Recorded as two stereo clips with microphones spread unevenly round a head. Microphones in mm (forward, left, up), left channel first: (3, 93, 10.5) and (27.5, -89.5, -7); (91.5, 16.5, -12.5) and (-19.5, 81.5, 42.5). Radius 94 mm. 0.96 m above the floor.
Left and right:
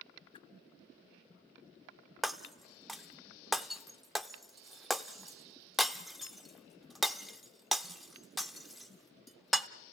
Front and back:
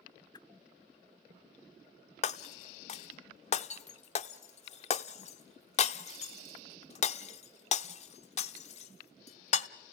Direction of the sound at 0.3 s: 40° left.